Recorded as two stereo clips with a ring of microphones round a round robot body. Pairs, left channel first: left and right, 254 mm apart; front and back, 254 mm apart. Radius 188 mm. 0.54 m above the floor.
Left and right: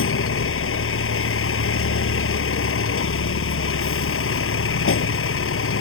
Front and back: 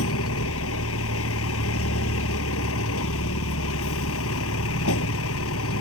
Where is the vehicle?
55° left.